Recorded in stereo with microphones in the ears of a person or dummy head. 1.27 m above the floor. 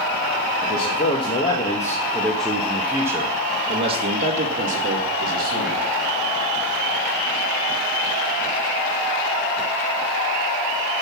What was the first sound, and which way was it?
A man speaking, 35° left (ahead or behind).